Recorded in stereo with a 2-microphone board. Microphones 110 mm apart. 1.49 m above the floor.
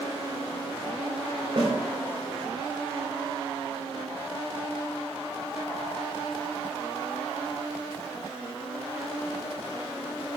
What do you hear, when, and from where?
1.6 s a snare drum: 60° right (ahead or behind), 3 m